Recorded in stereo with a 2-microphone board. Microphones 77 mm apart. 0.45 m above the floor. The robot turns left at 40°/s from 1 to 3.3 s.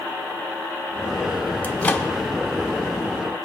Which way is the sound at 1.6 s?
25° left (ahead or behind).